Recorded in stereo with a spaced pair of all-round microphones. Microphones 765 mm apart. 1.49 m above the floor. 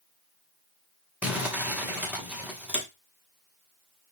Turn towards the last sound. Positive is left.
turn(degrees=0)  # may be behind; listen again after turning